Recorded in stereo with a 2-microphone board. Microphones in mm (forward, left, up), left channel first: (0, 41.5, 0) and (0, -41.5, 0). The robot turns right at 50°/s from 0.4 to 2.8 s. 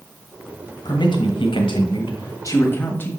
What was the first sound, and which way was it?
A man speaking, 55° left.